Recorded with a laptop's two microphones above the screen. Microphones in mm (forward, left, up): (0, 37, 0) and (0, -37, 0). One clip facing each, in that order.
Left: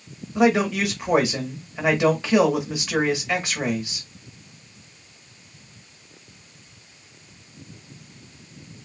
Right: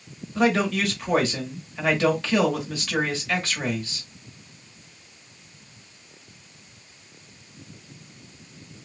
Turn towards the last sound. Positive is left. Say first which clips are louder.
# left 3 dB
turn(degrees=15)  # may be behind; listen again after turning